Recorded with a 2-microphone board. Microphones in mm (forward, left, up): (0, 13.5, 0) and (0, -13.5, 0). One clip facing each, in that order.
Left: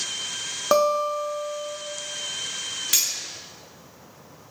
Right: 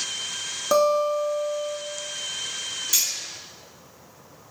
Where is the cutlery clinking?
55° left (ahead or behind), 0.7 m.